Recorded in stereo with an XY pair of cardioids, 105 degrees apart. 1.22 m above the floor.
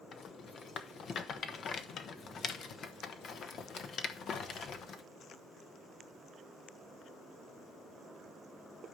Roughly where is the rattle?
Ahead left.